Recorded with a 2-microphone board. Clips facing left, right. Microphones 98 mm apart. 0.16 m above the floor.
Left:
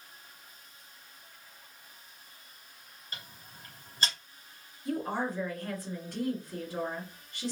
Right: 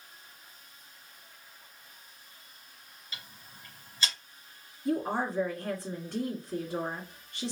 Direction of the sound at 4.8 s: 35° right (ahead or behind).